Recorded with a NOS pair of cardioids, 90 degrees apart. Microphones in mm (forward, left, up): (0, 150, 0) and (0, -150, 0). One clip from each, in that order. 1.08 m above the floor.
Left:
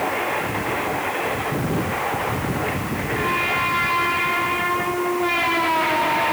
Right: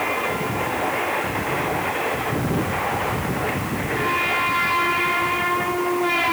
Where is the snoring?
No snoring in this recording.